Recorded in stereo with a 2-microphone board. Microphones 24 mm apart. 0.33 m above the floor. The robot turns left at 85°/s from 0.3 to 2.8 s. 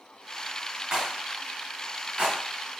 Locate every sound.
0.9 s a rattle: 25° right (ahead or behind), 1.3 m; by 2.4 s 30° right (ahead or behind), 1.3 m